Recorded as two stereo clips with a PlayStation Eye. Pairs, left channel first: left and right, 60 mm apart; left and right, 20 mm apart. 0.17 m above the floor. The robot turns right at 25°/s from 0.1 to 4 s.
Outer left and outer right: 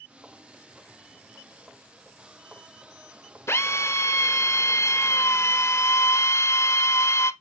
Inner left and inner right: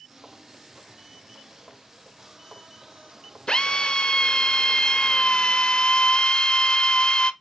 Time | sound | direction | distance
3.5 | a drill | 55° left (ahead or behind) | 0.7 m